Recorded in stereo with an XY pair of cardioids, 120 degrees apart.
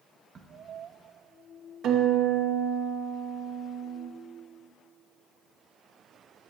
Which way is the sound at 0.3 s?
40° right.